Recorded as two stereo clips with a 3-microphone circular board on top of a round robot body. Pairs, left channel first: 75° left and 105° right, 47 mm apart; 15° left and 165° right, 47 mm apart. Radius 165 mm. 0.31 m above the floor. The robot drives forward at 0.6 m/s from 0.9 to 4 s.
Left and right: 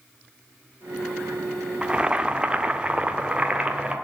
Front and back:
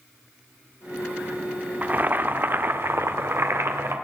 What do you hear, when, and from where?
1.8 s boiling: 160° right, 1.4 m; by 4.0 s 170° right, 2.5 m